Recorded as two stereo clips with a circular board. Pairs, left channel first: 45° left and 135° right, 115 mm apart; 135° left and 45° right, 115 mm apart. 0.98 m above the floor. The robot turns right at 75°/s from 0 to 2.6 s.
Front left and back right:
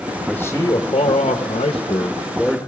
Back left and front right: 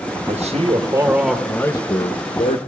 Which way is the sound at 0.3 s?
35° right.